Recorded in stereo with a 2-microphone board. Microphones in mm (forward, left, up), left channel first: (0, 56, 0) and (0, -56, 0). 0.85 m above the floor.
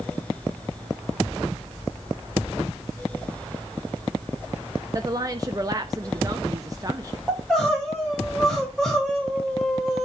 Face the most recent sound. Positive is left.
turn(degrees=5)  # may be behind; listen again after turning